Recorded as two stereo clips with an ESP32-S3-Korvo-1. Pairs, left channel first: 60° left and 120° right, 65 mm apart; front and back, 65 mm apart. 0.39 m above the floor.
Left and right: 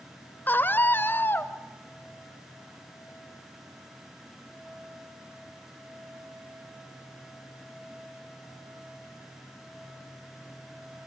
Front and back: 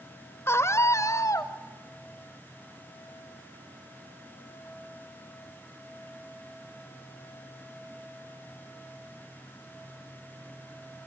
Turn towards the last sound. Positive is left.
turn(degrees=10)